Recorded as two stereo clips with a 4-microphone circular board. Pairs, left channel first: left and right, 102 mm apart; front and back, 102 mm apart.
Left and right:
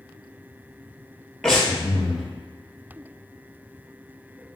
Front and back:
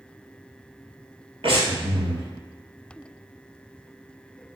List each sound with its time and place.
1.4 s breathing: 175° left, 1.2 m